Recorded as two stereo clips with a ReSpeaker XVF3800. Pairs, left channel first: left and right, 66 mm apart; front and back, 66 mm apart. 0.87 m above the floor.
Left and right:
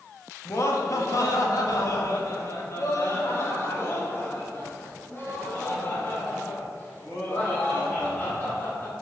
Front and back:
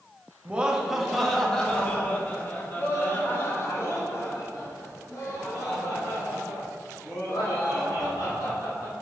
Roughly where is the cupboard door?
No cupboard door in this recording.